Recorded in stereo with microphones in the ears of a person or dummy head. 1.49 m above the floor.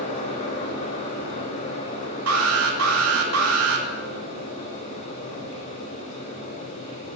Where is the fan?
35° left (ahead or behind), 2.5 m.